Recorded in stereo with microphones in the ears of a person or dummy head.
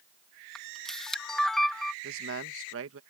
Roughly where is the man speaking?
Right.